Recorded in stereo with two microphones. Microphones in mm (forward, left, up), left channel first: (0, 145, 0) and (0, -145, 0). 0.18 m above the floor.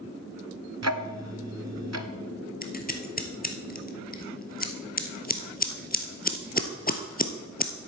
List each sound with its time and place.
0.8 s ticking: 60° right (ahead or behind), 0.7 m
2.6 s scissors: 30° left (ahead or behind), 0.9 m